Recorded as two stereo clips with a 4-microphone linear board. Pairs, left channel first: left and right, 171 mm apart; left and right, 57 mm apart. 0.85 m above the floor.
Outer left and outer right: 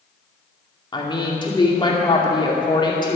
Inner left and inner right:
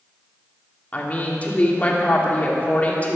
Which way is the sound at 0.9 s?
25° left (ahead or behind).